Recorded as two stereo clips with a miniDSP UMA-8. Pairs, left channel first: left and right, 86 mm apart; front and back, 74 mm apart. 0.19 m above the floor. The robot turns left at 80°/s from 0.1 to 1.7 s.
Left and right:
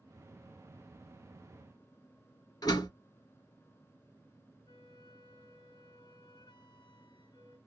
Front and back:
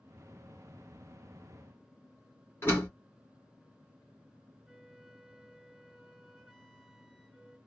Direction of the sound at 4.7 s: 85° left.